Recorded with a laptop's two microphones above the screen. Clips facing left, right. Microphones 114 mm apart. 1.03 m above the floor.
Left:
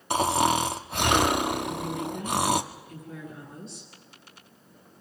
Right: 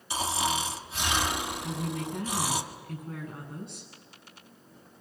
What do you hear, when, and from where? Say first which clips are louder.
0.1 s snoring: left 7 dB; 55° left (ahead or behind), 1.4 m
1.6 s a woman speaking: left 3 dB; 50° right (ahead or behind), 9.5 m